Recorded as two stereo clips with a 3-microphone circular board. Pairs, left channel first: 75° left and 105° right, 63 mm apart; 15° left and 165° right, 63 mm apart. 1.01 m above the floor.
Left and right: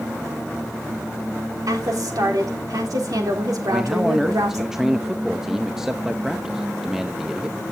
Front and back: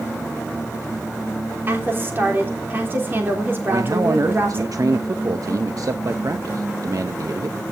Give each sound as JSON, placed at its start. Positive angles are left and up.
{"t": 1.7, "sound": "a woman speaking", "azimuth_deg": -110, "distance_m": 3.0}
{"t": 3.7, "sound": "a man speaking", "azimuth_deg": 170, "distance_m": 0.7}